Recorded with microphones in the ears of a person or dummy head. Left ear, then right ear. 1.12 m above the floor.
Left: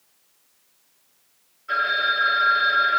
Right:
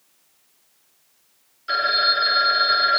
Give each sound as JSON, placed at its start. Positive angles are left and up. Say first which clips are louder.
{"t": 1.7, "sound": "a phone ringing", "louder": "right 2 dB", "side_deg": -75, "distance_m": 1.5}